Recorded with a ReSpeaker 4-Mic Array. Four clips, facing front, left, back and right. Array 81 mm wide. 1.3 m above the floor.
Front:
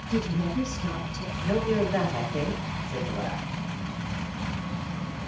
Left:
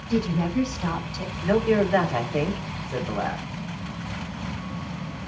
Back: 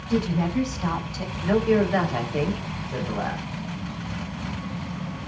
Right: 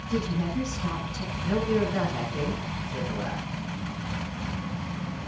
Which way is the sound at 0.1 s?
140° left.